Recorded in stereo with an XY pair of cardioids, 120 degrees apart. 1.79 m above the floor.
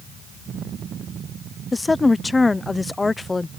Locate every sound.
1.7 s a woman speaking: 15° left